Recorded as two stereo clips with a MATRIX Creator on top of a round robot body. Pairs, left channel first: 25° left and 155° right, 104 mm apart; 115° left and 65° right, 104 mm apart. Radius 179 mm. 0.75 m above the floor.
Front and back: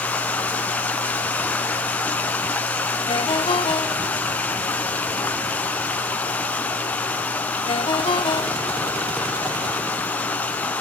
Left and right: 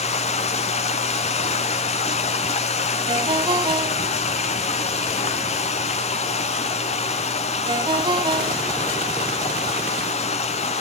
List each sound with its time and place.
0.0 s running water: 100° left, 0.9 m
3.1 s a ringtone: 25° right, 0.6 m